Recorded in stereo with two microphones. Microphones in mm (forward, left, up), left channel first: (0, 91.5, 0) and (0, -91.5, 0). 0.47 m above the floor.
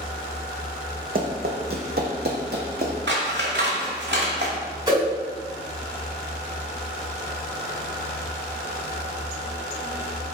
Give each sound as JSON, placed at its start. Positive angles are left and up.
{"t": 1.1, "sound": "running footsteps", "side_deg": -55, "distance_m": 1.0}
{"t": 3.1, "sound": "scissors", "side_deg": -80, "distance_m": 0.9}
{"t": 4.9, "sound": "a whoosh", "side_deg": -25, "distance_m": 2.0}